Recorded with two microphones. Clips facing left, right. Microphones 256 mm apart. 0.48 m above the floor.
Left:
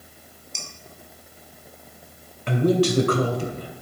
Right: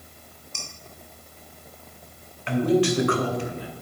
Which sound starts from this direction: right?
Dishes clattering, at 0.6 s.